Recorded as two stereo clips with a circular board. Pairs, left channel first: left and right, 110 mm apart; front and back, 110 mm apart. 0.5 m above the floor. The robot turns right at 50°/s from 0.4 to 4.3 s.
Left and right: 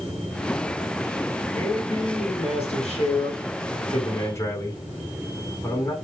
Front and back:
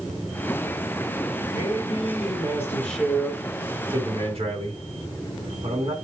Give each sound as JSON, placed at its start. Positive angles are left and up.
{"t": 1.5, "sound": "a man speaking", "azimuth_deg": 15, "distance_m": 5.0}